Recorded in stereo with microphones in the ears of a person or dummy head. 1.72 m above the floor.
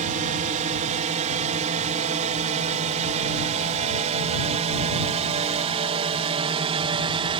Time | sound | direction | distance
0.0 | a drone | 40° right (ahead or behind) | ?